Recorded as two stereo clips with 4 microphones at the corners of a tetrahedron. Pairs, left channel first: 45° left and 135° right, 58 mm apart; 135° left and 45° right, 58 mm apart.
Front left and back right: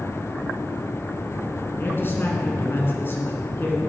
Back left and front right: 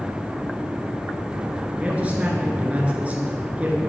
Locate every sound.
1.8 s a man speaking: 15° left, 2 m